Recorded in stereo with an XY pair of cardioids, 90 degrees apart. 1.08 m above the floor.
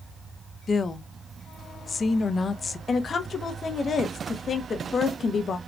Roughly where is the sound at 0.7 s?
Ahead left.